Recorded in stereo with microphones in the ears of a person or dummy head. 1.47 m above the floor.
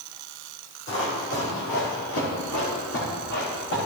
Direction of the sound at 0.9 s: 60° left (ahead or behind).